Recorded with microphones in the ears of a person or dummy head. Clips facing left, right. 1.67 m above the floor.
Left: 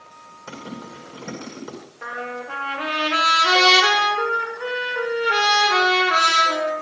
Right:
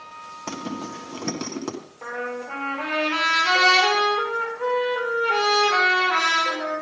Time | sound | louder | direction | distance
0.5 | a zipper | right 4 dB | 85° right | 1.7 m
2.0 | a trumpet | right 1 dB | 20° left (ahead or behind) | 4.5 m